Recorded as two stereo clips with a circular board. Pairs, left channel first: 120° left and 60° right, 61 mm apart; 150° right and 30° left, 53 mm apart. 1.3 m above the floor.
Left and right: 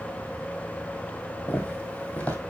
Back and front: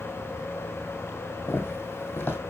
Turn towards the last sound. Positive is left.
turn(degrees=175)